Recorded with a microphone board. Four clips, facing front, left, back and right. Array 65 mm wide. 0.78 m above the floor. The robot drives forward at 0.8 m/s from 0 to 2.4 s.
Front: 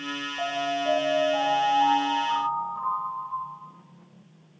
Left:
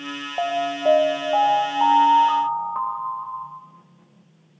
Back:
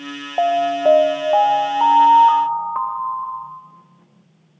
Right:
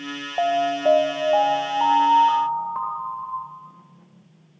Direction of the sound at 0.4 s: 175° right.